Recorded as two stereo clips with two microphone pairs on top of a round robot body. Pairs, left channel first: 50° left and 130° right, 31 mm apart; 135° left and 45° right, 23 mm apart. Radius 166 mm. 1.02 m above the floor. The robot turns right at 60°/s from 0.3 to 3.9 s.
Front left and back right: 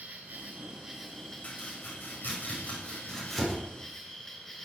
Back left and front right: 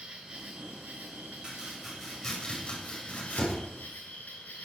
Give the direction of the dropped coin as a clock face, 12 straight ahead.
No dropped coin in this recording.